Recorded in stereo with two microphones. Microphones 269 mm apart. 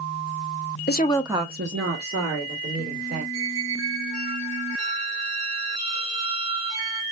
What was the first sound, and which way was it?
A woman speaking, 40° left (ahead or behind).